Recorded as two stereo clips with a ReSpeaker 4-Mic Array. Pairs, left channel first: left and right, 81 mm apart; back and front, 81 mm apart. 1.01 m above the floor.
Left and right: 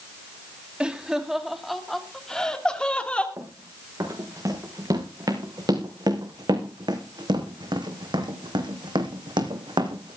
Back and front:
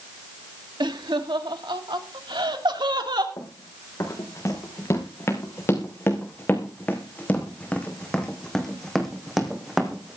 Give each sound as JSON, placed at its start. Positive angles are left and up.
{"t": 0.8, "sound": "laughter", "azimuth_deg": -10, "distance_m": 2.0}
{"t": 3.4, "sound": "running footsteps", "azimuth_deg": -135, "distance_m": 4.5}